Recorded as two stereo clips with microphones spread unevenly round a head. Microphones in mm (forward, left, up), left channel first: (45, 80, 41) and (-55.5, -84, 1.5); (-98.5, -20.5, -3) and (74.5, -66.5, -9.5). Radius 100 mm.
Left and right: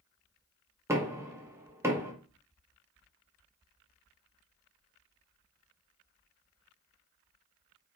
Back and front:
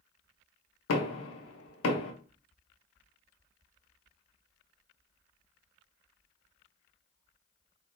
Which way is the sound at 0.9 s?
160° left.